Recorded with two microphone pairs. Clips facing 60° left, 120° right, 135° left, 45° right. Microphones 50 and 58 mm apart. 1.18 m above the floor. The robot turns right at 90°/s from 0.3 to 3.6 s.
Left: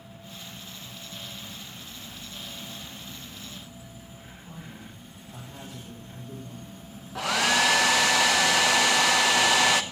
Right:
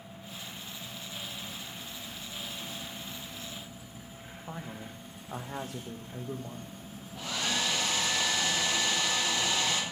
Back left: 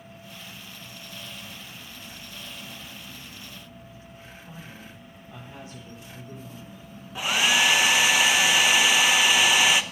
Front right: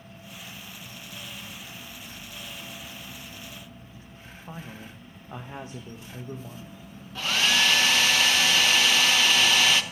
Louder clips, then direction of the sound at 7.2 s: Left 9 dB, back left 2 dB; 60° left.